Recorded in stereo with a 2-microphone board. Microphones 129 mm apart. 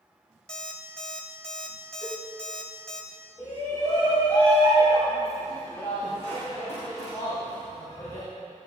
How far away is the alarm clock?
About 1.8 m.